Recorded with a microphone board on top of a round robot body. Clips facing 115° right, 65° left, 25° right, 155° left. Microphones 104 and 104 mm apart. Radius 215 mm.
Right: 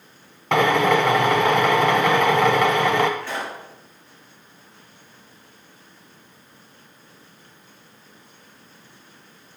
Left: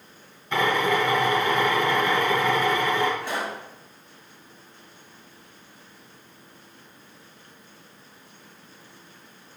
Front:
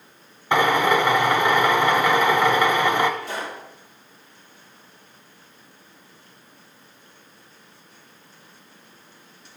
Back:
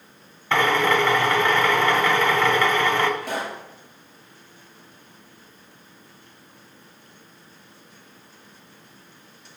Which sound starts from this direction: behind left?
A pop, at 3.2 s.